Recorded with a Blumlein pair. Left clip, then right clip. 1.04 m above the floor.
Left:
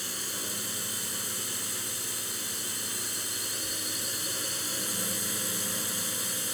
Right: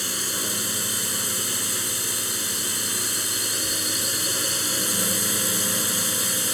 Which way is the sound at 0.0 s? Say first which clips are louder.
Right 8 dB; 25° right.